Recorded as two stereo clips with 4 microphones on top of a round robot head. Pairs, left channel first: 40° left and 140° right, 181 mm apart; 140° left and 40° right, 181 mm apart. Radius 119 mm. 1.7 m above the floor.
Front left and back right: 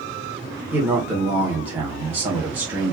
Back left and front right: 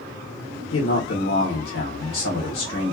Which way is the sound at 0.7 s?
140° left.